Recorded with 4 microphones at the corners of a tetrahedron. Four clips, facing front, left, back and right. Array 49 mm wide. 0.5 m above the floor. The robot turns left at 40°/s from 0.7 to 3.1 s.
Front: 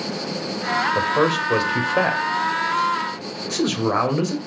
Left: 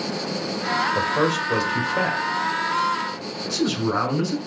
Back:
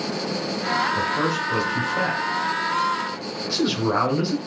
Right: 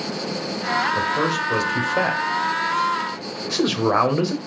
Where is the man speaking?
20° left, 2.5 m; by 4.4 s 65° right, 2.5 m.